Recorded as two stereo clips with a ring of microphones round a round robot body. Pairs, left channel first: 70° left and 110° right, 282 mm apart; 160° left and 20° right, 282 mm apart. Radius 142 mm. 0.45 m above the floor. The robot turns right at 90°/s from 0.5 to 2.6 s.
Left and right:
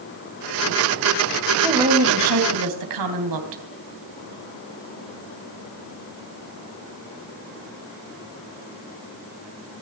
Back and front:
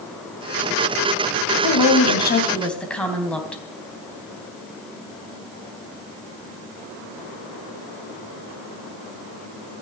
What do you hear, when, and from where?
1.6 s a woman speaking: 155° left, 3.5 m; by 3.6 s 115° right, 3.5 m